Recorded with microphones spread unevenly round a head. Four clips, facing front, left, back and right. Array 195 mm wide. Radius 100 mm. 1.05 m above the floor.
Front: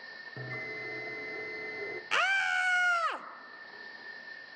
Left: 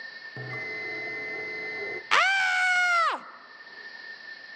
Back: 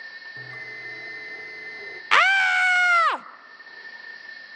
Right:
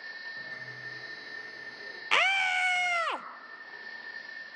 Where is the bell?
70° left, 1.2 m.